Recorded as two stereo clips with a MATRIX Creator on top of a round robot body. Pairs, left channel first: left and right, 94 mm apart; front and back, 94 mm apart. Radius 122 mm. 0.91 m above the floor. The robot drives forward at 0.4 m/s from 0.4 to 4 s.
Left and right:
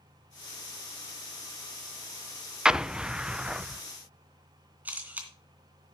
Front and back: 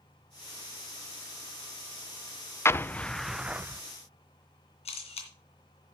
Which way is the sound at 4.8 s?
15° right.